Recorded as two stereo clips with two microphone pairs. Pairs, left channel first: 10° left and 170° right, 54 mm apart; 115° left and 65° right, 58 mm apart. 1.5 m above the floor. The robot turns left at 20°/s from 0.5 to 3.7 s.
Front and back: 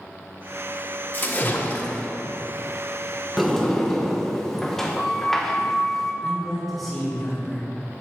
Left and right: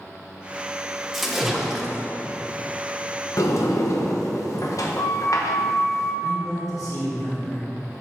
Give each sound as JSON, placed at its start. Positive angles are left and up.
{"t": 1.1, "sound": "a splash", "azimuth_deg": 20, "distance_m": 1.1}
{"t": 3.4, "sound": "a sliding door", "azimuth_deg": 105, "distance_m": 1.1}
{"t": 6.2, "sound": "a man speaking", "azimuth_deg": 100, "distance_m": 2.5}